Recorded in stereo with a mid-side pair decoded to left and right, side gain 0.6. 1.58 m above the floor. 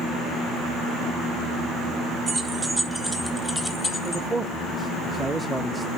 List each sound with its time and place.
2.3 s keys jangling: 20° right, 1.9 m; by 4.2 s 30° left, 1.4 m
4.0 s a man speaking: 15° right, 0.6 m